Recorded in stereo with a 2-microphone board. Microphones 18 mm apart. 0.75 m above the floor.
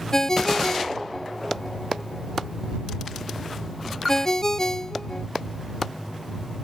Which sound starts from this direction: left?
A ringtone, at 0.1 s.